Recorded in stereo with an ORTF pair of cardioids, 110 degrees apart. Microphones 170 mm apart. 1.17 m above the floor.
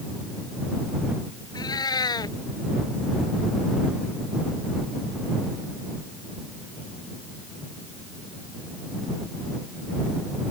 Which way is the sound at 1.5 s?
25° left.